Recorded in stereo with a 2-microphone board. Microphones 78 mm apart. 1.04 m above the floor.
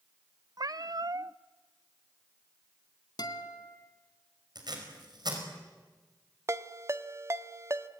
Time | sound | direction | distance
0.6 | a cat meowing | 55° right (ahead or behind) | 0.5 m
3.2 | a guitar | 60° left (ahead or behind) | 2.5 m
4.5 | tape being pulled | 60° right (ahead or behind) | 5.5 m
6.5 | a ringtone | 35° right (ahead or behind) | 0.9 m